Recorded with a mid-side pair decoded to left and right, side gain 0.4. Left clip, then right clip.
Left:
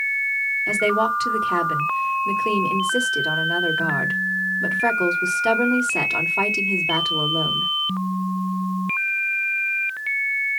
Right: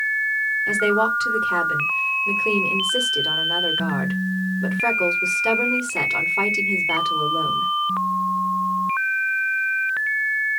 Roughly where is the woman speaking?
Ahead left.